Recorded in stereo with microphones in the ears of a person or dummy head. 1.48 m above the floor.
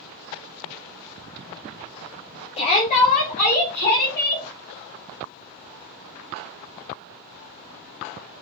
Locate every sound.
2.6 s a shout: 30° left (ahead or behind), 0.7 m; by 4.5 s 45° left (ahead or behind), 1.7 m